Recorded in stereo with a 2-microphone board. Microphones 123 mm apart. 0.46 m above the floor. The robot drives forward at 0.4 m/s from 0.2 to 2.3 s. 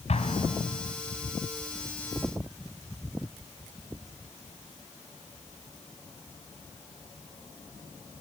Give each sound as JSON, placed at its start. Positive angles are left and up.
{"t": 0.1, "sound": "an explosion", "side_deg": 60, "distance_m": 1.8}